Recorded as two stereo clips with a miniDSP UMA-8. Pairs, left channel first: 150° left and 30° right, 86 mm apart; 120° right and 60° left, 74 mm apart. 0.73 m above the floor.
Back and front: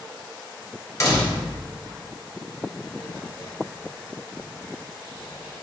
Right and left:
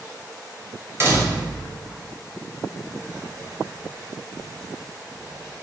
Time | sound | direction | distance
1.0 | a door slam | 105° left | 0.7 m
2.8 | writing | 90° left | 1.3 m